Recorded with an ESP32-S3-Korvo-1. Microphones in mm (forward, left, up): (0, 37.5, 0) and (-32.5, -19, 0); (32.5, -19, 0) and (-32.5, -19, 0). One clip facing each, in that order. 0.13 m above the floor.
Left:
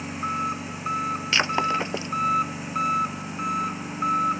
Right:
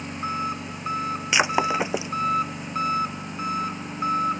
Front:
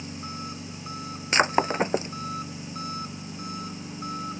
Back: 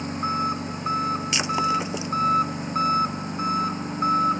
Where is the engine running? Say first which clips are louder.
Left 1 dB, back 11 dB; 145° left.